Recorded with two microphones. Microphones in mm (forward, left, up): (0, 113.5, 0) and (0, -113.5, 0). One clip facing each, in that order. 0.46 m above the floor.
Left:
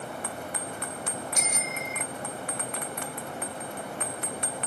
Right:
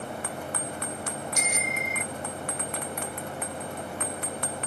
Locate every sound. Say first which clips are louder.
1.4 s a bicycle bell: right 2 dB; 65° right (ahead or behind)